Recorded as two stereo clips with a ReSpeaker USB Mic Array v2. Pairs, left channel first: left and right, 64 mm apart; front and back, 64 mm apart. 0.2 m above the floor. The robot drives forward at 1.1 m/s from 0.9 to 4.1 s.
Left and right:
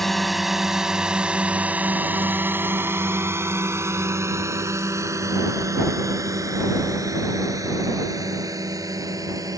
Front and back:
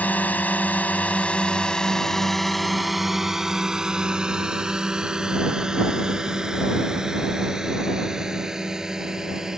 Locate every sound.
0.0 s a drone: 10° left; by 9.6 s 100° right